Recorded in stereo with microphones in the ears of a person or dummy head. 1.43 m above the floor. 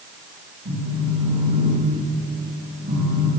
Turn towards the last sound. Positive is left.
turn(degrees=-60)  # may be behind; listen again after turning